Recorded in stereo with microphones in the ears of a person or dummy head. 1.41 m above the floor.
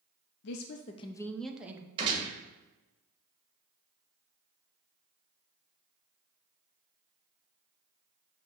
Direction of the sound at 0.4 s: 60° left (ahead or behind).